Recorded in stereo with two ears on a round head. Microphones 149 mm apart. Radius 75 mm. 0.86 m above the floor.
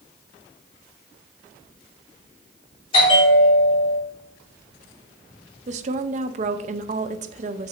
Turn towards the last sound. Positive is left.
turn(degrees=-45)  # may be behind; listen again after turning